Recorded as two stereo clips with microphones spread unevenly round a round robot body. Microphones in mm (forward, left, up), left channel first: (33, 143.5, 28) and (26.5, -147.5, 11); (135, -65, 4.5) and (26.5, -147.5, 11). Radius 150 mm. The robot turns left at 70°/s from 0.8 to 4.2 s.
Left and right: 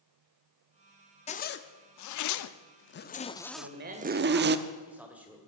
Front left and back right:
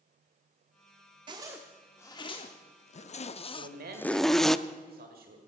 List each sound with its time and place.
1.3 s a zipper: 160° left, 0.7 m; by 4.6 s 50° right, 0.7 m
3.6 s a man speaking: 130° right, 1.9 m; by 5.5 s 175° right, 1.9 m